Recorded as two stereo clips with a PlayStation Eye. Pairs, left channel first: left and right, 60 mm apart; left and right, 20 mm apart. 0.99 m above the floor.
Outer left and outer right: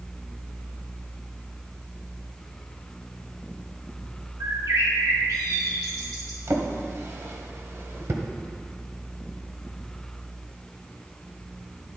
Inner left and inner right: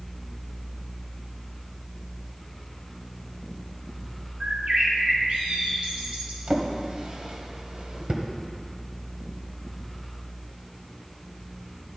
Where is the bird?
80° right, 1.9 m.